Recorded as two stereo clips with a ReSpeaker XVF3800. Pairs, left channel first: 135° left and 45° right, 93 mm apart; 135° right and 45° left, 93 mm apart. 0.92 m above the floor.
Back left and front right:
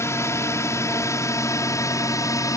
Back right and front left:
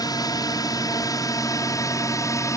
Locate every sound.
0.0 s a drone: 170° right; by 2.6 s straight behind